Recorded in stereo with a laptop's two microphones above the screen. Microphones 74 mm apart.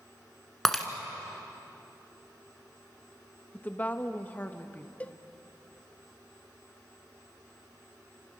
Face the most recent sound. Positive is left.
turn(degrees=20)  # may be behind; listen again after turning